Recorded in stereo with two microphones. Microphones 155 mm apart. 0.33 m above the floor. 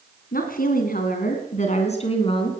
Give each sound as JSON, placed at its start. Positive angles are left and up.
{"t": 0.3, "sound": "a woman speaking", "side_deg": 70, "distance_m": 3.0}